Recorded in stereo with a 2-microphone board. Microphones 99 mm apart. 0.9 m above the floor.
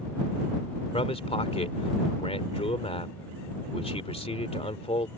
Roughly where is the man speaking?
Left.